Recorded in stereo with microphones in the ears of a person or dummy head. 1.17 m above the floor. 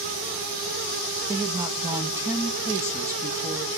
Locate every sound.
1.3 s a woman speaking: 15° right (ahead or behind), 1.7 m